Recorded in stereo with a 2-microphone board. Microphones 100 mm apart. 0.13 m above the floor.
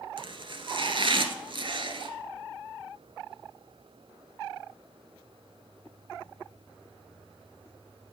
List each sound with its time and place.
0.2 s chopping: 60° right (ahead or behind), 1.0 m